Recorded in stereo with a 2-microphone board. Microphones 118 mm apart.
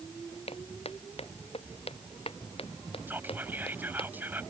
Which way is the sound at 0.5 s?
60° left (ahead or behind).